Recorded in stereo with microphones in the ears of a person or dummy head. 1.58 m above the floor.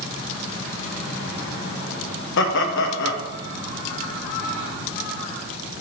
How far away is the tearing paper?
I don't hear tearing paper.